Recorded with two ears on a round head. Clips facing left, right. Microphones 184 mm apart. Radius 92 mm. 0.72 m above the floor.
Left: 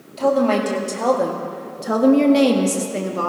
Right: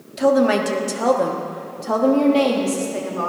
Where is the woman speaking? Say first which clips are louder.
Right 1 dB; 20° right (ahead or behind), 1.7 m; by 3.3 s 50° left (ahead or behind), 1.5 m.